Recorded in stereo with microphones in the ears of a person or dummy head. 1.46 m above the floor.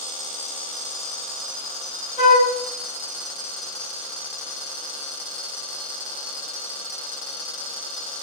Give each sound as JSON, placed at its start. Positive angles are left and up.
{"t": 2.2, "sound": "a flute", "side_deg": 35, "distance_m": 1.6}